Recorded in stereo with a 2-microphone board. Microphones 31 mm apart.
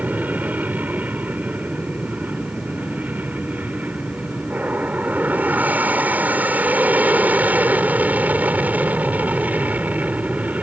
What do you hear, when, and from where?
0.0 s an aircraft: 70° right (ahead or behind); by 10.6 s 60° right (ahead or behind)